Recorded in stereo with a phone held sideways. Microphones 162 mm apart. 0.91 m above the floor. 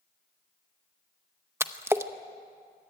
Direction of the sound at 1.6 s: 15° right (ahead or behind).